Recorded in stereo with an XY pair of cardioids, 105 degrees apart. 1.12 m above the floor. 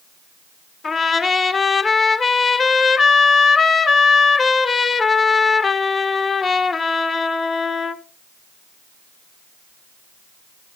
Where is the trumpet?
40° left, 1.4 m.